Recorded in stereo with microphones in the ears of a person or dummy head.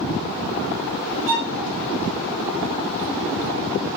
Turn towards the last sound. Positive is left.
turn(degrees=-20)  # may be behind; listen again after turning